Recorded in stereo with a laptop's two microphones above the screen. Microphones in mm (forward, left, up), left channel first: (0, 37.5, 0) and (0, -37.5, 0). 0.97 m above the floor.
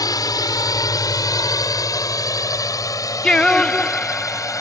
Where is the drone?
60° left (ahead or behind); by 4.6 s 50° left (ahead or behind).